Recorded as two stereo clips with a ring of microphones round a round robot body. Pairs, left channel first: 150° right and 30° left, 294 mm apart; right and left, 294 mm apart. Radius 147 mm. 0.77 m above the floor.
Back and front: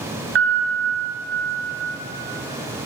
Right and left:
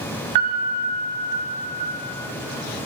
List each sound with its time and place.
0.3 s a piano: 80° left, 4.5 m